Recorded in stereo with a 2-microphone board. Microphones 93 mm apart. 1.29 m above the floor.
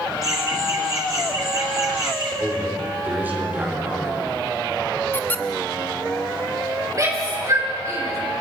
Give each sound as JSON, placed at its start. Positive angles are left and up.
{"t": 0.2, "sound": "laughter", "side_deg": -40, "distance_m": 0.9}
{"t": 2.4, "sound": "a man speaking", "side_deg": -20, "distance_m": 4.5}
{"t": 5.1, "sound": "a squeak", "side_deg": 25, "distance_m": 0.7}
{"t": 6.9, "sound": "a shout", "side_deg": -40, "distance_m": 6.5}